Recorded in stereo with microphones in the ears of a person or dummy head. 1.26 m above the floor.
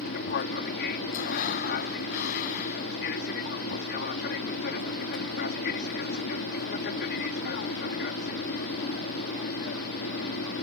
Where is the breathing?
45° left (ahead or behind).